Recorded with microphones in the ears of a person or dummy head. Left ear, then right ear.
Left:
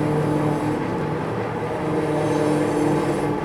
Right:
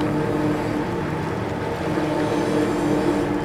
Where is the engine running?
40° left (ahead or behind), 3 m.